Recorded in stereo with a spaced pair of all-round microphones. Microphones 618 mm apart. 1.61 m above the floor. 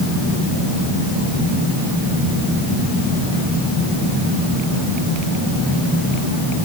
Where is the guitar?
I don't hear a guitar.